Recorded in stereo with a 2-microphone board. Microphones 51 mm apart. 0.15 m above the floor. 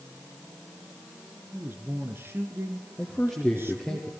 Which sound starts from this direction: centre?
A man speaking, at 3.0 s.